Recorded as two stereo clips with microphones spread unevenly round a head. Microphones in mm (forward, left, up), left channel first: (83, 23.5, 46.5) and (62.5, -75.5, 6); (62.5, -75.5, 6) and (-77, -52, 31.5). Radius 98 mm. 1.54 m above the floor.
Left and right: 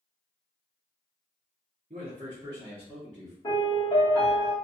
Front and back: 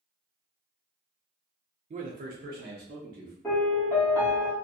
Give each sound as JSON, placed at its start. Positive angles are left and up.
{"t": 1.9, "sound": "a man speaking", "azimuth_deg": -150, "distance_m": 0.5}
{"t": 3.4, "sound": "a piano", "azimuth_deg": 80, "distance_m": 1.1}